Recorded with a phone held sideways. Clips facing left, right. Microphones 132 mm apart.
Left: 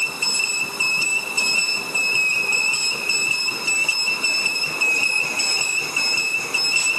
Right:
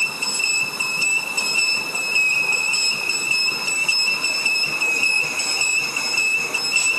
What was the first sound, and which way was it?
Only background noise.